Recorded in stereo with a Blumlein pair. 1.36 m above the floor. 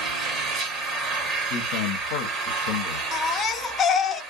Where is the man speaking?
45° left, 0.7 m.